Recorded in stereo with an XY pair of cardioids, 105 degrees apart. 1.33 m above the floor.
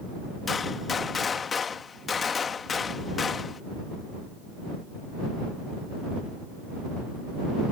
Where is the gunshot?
40° left.